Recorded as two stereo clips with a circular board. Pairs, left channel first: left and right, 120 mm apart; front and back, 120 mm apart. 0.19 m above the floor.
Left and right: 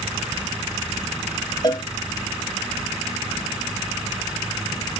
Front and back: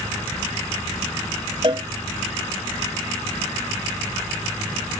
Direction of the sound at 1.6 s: 140° left.